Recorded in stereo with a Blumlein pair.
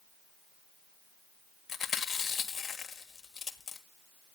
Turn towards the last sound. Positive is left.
turn(degrees=20)